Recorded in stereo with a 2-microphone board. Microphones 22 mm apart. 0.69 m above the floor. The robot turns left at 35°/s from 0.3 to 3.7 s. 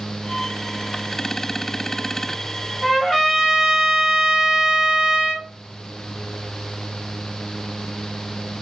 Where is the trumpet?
15° left, 1.4 m; by 5.5 s 15° right, 1.4 m.